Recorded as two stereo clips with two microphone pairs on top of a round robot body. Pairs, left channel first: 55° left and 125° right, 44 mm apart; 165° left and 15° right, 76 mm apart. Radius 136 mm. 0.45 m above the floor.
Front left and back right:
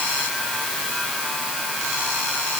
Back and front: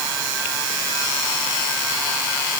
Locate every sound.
Only background noise.